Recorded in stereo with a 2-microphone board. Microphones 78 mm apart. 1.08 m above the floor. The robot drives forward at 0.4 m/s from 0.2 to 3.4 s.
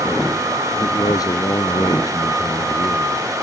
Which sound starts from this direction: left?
A man speaking, at 0.8 s.